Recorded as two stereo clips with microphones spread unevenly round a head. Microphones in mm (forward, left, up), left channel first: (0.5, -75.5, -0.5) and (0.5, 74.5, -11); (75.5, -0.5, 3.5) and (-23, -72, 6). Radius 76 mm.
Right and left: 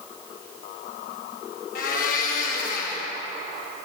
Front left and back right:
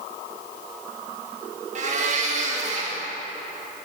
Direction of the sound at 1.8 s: 125° right.